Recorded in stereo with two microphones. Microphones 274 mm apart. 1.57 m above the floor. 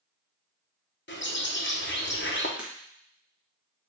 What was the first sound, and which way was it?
A bird, 40° left (ahead or behind).